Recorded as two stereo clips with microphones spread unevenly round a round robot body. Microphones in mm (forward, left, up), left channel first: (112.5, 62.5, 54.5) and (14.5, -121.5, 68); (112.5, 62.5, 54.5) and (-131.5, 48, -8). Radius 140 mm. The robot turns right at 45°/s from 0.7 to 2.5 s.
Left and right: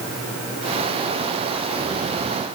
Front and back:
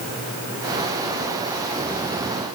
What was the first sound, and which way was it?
Only background noise.